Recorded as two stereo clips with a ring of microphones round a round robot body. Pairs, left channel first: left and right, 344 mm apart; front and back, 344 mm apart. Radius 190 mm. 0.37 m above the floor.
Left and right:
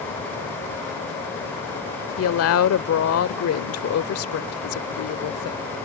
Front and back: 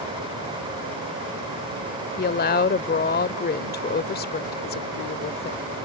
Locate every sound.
2.2 s a woman speaking: 55° left